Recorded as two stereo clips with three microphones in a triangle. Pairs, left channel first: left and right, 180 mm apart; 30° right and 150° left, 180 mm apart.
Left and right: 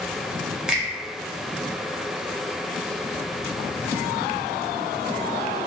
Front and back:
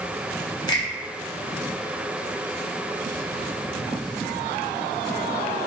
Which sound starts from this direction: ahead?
A finger snap, at 0.7 s.